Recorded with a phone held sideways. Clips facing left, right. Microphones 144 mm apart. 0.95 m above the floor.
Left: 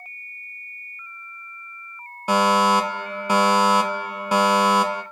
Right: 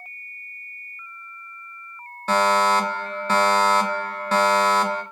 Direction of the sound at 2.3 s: 10° left (ahead or behind).